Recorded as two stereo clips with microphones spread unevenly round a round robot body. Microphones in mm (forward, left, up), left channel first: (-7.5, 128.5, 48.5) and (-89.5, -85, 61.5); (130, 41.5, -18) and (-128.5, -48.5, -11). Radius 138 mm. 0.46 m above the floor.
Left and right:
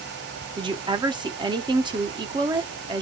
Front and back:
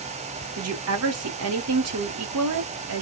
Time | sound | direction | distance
0.6 | a woman speaking | straight behind | 1.3 m